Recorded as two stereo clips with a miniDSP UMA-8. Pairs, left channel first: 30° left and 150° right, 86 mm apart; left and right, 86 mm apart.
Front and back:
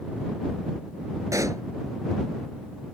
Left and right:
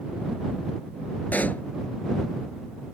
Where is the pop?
160° left.